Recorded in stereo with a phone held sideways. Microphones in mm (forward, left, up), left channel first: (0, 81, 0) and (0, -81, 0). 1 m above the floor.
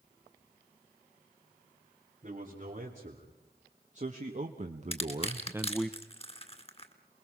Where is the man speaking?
45° right (ahead or behind), 3.5 m; by 5.9 s 5° left (ahead or behind), 0.8 m.